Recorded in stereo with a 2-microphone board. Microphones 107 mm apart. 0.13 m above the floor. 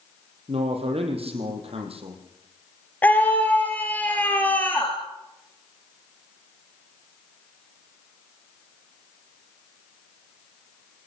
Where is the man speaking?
70° right (ahead or behind), 5 m.